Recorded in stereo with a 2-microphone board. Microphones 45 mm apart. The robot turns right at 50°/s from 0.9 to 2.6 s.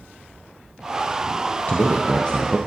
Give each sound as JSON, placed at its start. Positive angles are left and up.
{"t": 1.7, "sound": "a man speaking", "azimuth_deg": 115, "distance_m": 0.5}